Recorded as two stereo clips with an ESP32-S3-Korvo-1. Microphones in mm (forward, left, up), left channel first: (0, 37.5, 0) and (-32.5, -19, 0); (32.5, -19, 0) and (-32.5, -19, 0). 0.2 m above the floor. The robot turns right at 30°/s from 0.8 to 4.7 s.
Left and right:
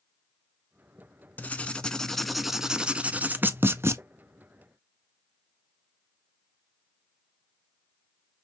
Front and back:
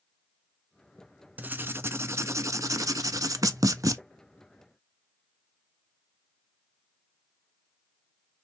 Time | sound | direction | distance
1.4 | writing | 120° left | 0.5 m